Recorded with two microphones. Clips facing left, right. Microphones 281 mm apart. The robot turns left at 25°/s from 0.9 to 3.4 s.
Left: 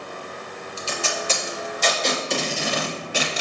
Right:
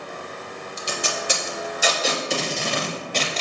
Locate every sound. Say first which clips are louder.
0.8 s tape being pulled: even; 20° right (ahead or behind), 0.6 m; by 3.4 s 10° left (ahead or behind), 0.6 m